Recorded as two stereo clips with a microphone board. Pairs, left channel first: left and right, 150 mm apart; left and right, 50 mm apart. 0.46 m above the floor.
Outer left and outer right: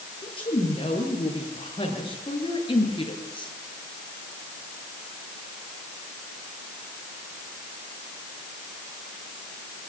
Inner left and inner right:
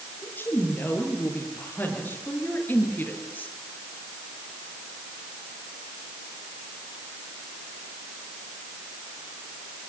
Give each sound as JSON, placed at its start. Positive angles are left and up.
{"t": 0.2, "sound": "a woman speaking", "side_deg": 35, "distance_m": 9.0}